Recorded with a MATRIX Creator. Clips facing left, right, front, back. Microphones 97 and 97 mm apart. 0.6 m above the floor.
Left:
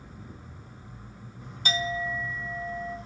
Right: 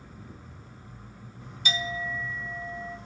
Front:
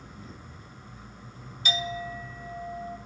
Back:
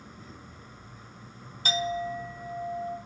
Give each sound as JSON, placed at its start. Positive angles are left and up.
{"t": 1.6, "sound": "a clink", "azimuth_deg": 135, "distance_m": 0.9}